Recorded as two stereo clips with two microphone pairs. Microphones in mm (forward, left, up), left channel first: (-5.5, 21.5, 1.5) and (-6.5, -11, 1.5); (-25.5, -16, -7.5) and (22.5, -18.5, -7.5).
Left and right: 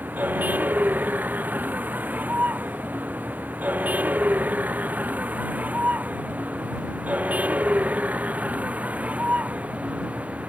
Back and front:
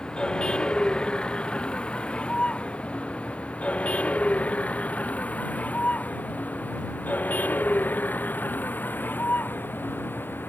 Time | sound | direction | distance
0.0 | a vehicle | 110° right | ?